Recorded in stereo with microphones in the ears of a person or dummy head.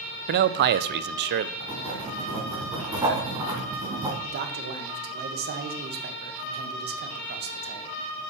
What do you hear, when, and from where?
0.3 s a man speaking: 50° right (ahead or behind), 0.7 m
1.6 s writing: 20° right (ahead or behind), 2.5 m
4.2 s a man speaking: 50° right (ahead or behind), 1.6 m